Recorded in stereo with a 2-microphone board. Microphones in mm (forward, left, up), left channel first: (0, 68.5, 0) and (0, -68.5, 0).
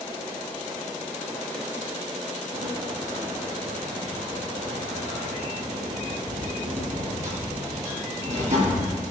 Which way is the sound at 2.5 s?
60° right (ahead or behind).